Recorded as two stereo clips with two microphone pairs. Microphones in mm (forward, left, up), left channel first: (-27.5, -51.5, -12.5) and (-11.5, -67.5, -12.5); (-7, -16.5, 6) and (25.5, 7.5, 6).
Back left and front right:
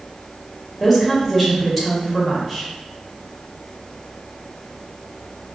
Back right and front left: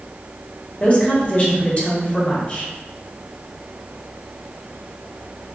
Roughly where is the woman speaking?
Behind right.